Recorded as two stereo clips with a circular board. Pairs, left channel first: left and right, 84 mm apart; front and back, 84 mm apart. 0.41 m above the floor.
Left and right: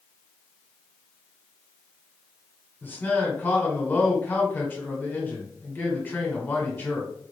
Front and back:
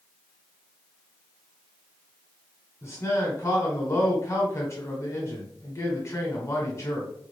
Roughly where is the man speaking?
Ahead left.